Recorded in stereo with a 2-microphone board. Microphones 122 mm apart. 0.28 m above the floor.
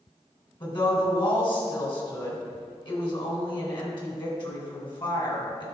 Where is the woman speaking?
40° left (ahead or behind), 2.5 m.